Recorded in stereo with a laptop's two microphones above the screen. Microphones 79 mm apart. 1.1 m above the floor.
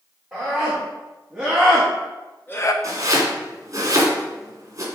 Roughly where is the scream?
Centre.